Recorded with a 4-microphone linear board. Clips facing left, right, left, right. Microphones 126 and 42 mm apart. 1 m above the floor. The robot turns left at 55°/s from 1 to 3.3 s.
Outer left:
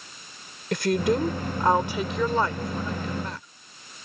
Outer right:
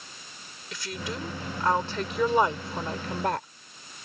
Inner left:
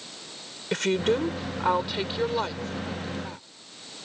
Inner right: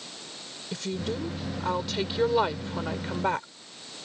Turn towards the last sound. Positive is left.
turn(degrees=-65)